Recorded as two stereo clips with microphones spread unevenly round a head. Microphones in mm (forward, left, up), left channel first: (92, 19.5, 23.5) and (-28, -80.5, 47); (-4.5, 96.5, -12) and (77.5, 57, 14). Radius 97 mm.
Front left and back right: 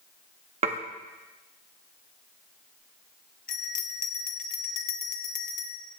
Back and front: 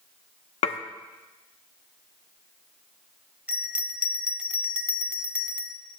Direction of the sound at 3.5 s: 25° left.